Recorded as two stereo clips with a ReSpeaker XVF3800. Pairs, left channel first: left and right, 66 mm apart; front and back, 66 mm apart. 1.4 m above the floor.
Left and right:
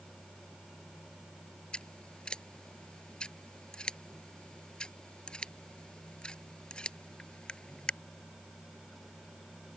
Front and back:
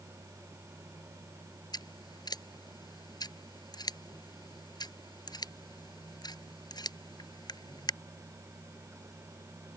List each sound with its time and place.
1.7 s scissors: 10° left